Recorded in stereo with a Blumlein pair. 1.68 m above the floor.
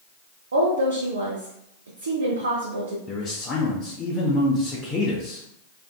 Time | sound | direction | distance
0.5 | a woman speaking | 70° right | 0.5 m
3.1 | a man speaking | 20° left | 0.6 m